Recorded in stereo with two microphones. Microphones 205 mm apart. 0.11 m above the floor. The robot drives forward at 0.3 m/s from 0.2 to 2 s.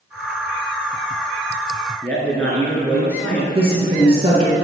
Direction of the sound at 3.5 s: 25° right (ahead or behind).